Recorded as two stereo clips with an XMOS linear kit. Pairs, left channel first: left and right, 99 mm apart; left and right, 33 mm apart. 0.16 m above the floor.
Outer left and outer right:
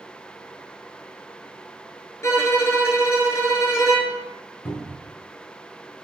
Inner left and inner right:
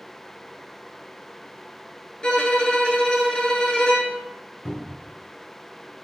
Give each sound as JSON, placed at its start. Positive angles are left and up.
{"t": 2.2, "sound": "a violin", "side_deg": 30, "distance_m": 0.6}
{"t": 4.7, "sound": "a cupboard door", "side_deg": 20, "distance_m": 0.8}